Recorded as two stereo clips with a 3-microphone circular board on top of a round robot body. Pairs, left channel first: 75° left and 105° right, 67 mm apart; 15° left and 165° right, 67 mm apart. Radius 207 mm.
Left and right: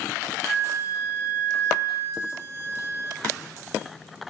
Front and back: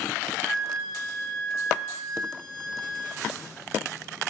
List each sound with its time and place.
0.5 s a flute: 35° left, 1.3 m